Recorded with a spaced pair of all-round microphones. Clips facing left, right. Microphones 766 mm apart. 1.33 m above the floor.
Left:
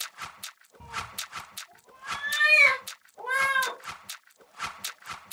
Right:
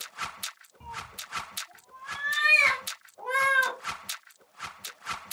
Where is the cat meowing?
50° left (ahead or behind), 2.5 m; by 3.8 s 65° left (ahead or behind), 4 m.